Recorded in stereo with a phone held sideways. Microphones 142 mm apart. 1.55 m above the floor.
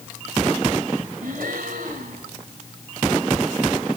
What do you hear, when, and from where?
1.2 s a gasp: 70° right (ahead or behind), 4 m